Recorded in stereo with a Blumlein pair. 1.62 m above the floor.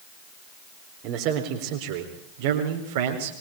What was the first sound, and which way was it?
A man speaking, 40° right.